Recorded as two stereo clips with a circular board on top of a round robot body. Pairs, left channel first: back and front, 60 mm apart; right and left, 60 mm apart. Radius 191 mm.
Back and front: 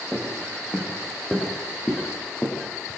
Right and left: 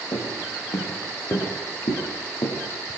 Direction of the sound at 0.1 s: 90° right.